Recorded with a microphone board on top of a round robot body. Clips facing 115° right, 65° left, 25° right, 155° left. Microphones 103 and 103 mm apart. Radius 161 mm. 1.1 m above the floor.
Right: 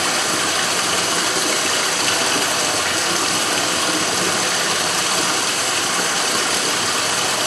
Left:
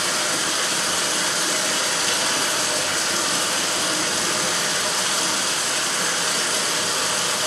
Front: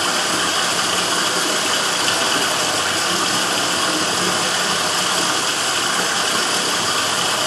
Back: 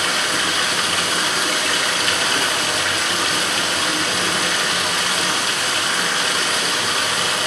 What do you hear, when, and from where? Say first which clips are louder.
0.0 s running water: right 4 dB, front 2 dB; 80° right, 1.2 m